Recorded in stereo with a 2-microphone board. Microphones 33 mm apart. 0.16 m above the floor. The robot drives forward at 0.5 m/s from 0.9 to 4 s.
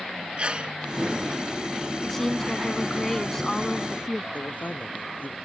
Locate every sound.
0.4 s a sneeze: 35° right (ahead or behind)
2.0 s a woman speaking: 10° left (ahead or behind)
4.3 s a man speaking: 60° left (ahead or behind)